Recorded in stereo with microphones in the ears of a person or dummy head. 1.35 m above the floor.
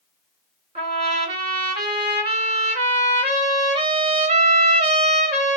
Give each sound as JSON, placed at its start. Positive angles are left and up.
{"t": 0.8, "sound": "a trumpet", "side_deg": -35, "distance_m": 1.5}